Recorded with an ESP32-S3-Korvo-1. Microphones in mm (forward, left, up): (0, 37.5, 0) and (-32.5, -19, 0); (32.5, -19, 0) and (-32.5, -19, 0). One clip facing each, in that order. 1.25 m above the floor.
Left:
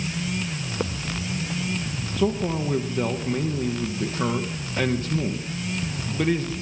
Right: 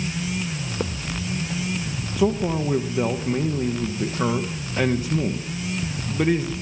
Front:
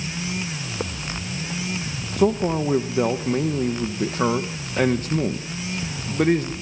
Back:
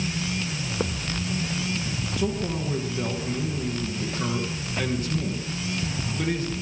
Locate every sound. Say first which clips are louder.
2.2 s a man speaking: right 2 dB, front 9 dB; 40° right, 1.1 m